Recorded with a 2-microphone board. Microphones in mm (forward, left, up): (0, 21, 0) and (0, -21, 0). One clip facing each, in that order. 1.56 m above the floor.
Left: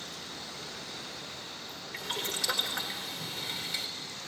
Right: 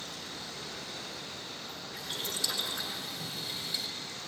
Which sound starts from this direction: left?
Boiling, at 1.9 s.